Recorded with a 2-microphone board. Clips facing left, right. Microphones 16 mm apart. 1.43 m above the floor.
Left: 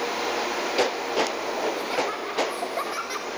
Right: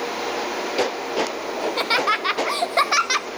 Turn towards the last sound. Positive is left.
turn(degrees=-40)  # may be behind; listen again after turning